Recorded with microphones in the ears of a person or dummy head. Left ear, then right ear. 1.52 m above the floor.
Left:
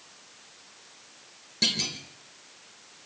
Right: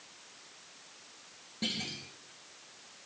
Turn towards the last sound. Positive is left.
turn(degrees=70)  # may be behind; listen again after turning